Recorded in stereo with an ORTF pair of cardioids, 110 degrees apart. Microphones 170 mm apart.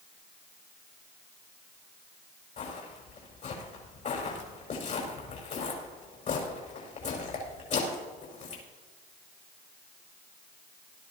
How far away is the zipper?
I don't hear a zipper.